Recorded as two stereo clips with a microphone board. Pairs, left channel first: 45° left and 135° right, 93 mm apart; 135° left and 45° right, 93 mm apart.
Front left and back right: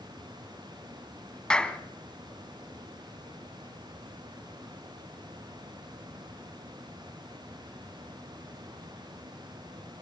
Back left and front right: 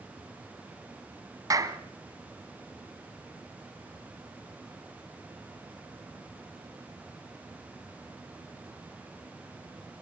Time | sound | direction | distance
1.5 | a clap | 30° right | 1.6 m